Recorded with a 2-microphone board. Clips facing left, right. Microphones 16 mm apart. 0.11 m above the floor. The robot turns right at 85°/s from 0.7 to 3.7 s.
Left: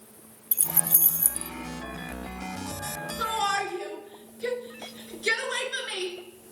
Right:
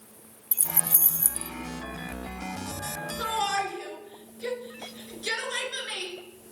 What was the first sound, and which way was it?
Keys jangling, 25° left (ahead or behind).